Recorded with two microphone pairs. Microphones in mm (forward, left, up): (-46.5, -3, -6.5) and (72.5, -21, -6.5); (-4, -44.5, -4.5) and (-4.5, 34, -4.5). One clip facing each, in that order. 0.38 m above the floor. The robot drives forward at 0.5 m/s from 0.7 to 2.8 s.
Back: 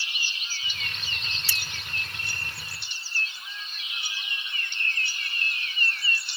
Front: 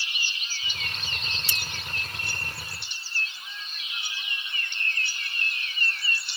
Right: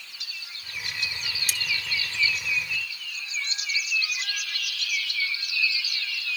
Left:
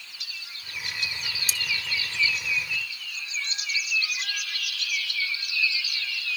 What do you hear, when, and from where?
1.5 s cutlery clinking: 75° right; by 1.6 s 80° right